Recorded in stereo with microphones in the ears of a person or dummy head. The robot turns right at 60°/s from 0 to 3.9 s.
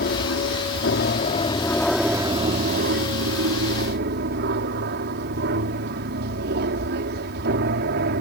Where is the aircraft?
60° left; by 8.2 s 65° right.